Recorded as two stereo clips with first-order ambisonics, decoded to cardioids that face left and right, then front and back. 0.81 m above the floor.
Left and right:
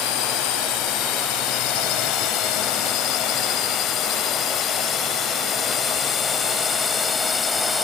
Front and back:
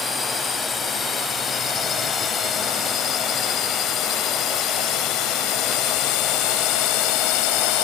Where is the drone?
75° left; by 7.8 s 15° left.